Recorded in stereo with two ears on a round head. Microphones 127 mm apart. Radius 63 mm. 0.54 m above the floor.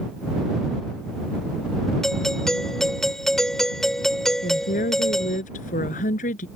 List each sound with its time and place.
2.0 s a doorbell: 5° left (ahead or behind)
4.4 s a woman speaking: 55° left (ahead or behind)